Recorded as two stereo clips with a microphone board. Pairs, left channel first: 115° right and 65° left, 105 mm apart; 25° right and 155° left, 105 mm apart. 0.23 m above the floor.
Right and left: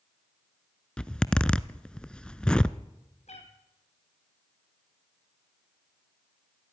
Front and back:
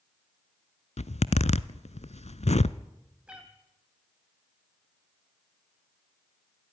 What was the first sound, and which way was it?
A zipper, 30° right.